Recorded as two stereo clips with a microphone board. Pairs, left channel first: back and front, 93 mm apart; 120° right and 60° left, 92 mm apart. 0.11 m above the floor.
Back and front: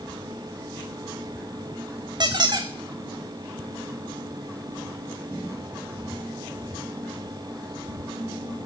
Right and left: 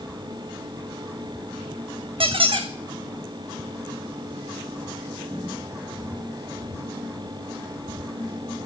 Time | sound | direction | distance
2.2 | a squeak | 40° left | 1.1 m